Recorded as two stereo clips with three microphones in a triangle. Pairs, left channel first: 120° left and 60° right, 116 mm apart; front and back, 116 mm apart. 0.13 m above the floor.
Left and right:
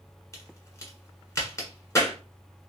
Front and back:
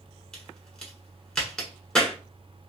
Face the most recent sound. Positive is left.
turn(degrees=80)